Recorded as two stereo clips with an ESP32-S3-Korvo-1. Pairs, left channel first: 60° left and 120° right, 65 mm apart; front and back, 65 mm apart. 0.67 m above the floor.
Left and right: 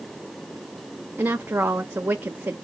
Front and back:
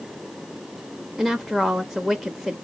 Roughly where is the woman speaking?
Right.